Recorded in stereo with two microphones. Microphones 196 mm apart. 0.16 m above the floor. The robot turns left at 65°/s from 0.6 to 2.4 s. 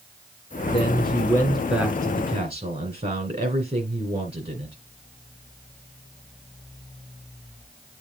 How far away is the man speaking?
About 2 m.